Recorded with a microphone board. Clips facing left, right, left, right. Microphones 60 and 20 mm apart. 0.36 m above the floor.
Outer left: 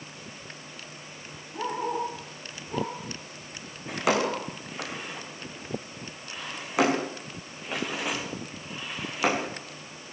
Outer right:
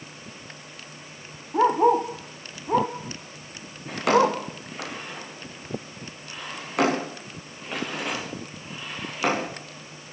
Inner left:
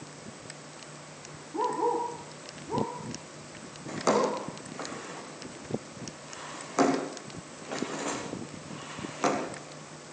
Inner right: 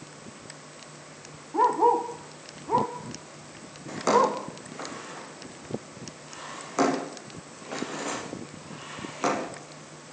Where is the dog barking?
55° right (ahead or behind), 3.5 m; by 4.4 s 75° right (ahead or behind), 4.5 m.